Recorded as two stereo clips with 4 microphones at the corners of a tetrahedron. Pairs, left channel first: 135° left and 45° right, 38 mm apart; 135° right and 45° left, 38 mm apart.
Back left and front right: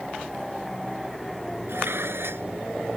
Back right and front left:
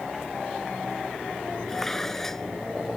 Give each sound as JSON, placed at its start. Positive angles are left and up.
{"t": 1.7, "sound": "dishes clattering", "azimuth_deg": -55}